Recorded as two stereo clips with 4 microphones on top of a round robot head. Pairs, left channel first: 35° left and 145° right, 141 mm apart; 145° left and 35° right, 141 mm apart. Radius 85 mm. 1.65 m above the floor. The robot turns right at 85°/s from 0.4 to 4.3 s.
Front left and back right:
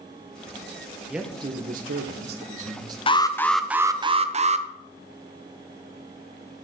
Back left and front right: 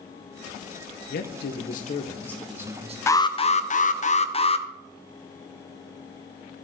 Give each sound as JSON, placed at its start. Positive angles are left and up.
{"t": 1.1, "sound": "a man speaking", "azimuth_deg": 125, "distance_m": 1.4}
{"t": 3.1, "sound": "an alarm", "azimuth_deg": 80, "distance_m": 0.7}